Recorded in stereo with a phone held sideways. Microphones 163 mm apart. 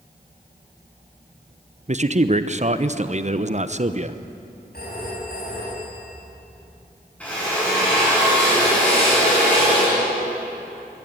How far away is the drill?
About 9 m.